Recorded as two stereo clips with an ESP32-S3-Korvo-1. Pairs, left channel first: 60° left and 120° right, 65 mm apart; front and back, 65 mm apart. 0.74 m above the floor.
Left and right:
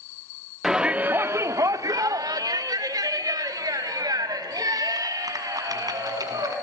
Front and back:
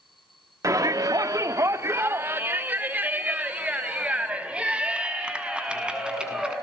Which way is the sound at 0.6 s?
155° left.